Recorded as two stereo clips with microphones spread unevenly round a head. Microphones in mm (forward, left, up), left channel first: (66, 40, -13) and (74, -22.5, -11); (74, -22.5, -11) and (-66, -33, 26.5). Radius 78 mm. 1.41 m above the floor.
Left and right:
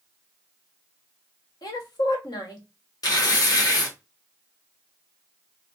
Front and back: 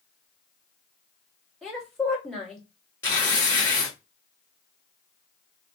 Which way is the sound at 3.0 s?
80° left.